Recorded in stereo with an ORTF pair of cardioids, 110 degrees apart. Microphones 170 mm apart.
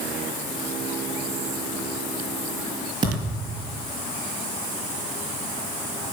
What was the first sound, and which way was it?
A thud, 25° right.